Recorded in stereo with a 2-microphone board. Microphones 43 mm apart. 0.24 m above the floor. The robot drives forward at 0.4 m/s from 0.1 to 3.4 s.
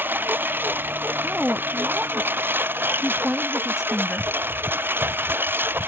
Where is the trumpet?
No trumpet in this recording.